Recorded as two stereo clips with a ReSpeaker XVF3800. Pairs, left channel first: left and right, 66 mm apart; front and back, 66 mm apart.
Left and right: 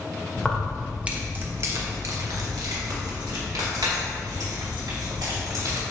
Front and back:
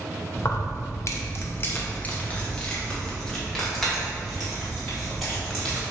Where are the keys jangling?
20° left, 0.9 m; by 5.8 s 90° right, 3.5 m.